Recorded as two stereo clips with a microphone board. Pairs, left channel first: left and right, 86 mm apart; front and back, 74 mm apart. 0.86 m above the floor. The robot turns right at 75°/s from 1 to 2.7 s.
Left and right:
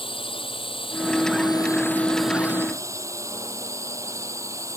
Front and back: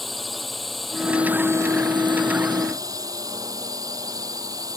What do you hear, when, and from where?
0.0 s a drone: 90° left; by 4.8 s 145° right